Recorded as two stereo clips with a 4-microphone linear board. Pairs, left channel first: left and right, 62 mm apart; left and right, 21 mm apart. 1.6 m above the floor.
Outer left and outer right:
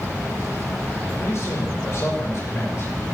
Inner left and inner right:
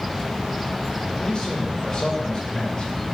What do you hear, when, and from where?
1.2 s a man speaking: 50° left (ahead or behind), 6 m; by 3.1 s 45° left (ahead or behind), 7 m